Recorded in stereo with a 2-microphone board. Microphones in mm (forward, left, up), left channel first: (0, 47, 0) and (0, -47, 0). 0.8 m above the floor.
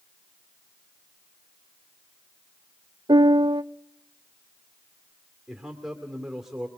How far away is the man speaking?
About 2 m.